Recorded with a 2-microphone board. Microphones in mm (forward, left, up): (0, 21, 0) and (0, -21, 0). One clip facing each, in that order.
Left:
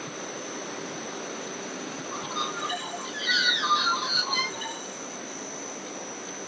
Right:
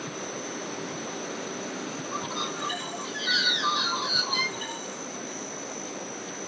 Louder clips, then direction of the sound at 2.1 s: Left 2 dB; 10° left (ahead or behind).